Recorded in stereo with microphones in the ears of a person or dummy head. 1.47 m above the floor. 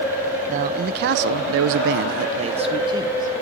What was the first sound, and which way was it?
A man speaking, 45° right (ahead or behind).